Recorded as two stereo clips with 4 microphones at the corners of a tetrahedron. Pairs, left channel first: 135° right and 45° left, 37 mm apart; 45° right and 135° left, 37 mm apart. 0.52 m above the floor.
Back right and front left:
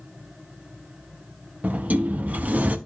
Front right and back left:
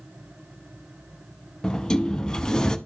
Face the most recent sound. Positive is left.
turn(degrees=25)